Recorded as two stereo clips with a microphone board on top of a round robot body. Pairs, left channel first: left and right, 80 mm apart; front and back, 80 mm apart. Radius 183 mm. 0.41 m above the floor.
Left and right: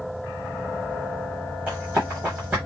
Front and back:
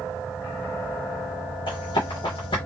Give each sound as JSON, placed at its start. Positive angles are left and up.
{"t": 1.7, "sound": "running footsteps", "azimuth_deg": -15, "distance_m": 1.3}